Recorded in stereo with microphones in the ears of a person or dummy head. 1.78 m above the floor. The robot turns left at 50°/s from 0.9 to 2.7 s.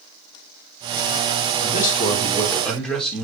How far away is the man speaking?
About 3 m.